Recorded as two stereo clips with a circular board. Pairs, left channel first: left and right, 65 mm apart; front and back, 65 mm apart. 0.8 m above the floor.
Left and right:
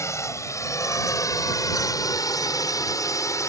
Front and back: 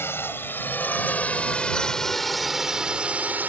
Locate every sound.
0.0 s a drone: 50° left; by 3.5 s 120° left